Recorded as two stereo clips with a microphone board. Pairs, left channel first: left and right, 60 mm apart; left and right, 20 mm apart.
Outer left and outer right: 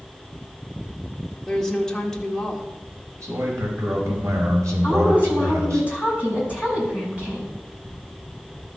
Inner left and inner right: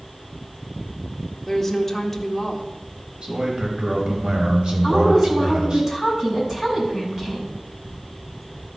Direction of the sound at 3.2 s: 65° right (ahead or behind).